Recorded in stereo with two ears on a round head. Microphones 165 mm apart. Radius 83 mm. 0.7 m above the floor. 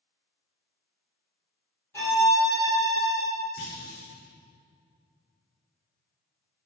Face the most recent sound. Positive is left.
turn(degrees=60)  # may be behind; listen again after turning